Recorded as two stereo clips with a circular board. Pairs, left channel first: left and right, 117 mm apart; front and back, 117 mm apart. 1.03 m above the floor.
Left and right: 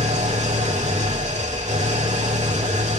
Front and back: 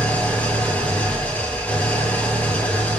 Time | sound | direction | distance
0.0 | an engine running | 75° right | 3.5 m